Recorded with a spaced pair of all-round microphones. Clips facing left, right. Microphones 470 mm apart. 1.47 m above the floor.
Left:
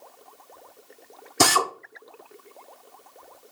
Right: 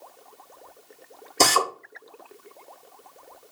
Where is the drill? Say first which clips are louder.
Even; 30° left (ahead or behind), 0.6 m.